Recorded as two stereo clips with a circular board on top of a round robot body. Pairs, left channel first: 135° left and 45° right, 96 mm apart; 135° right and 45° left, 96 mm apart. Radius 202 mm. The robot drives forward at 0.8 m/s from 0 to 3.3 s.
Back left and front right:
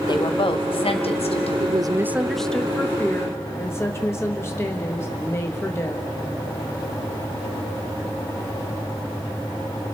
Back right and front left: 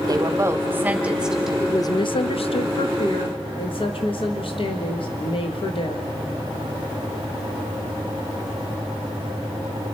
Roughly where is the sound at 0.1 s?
Left.